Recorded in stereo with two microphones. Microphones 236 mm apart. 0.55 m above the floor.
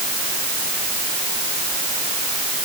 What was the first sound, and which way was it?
Only background noise.